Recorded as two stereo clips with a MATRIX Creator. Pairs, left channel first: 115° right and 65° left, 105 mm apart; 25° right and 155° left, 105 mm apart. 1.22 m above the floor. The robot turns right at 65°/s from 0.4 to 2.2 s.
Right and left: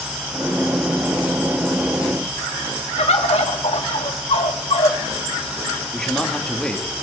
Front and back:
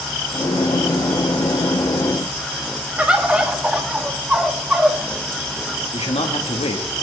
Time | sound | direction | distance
3.0 | a bird | 125° right | 1.6 m
5.9 | a man speaking | 30° right | 2 m